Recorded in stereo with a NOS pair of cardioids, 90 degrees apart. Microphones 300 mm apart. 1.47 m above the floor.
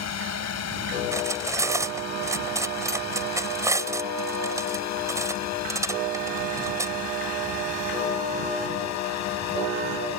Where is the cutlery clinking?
10° right.